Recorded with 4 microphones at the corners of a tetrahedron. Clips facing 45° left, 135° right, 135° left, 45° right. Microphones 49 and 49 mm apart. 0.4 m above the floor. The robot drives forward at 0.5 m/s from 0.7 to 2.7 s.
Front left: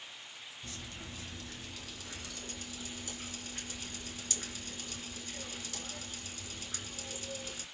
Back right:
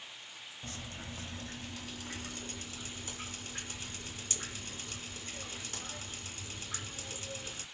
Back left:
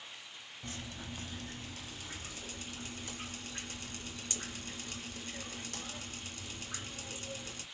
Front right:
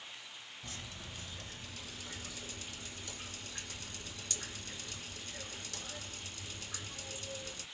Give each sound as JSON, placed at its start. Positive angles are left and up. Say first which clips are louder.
{"t": 0.6, "sound": "dripping", "louder": "back right 2 dB, back left 4 dB", "azimuth_deg": 180, "distance_m": 0.9}